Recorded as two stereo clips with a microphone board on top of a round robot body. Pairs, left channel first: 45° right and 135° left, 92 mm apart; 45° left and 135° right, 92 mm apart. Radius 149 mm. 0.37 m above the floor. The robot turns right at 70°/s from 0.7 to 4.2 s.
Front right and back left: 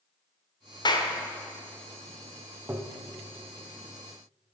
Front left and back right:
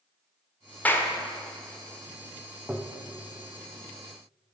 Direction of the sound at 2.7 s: 155° left.